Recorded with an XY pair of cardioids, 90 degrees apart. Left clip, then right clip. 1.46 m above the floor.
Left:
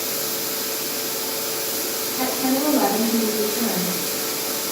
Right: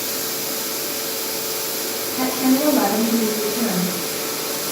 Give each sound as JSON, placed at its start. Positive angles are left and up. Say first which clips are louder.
{"t": 2.2, "sound": "a woman speaking", "louder": "right 3 dB", "azimuth_deg": -65, "distance_m": 2.0}